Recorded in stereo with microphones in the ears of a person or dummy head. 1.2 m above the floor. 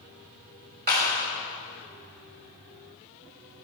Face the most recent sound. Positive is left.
turn(degrees=-45)  # may be behind; listen again after turning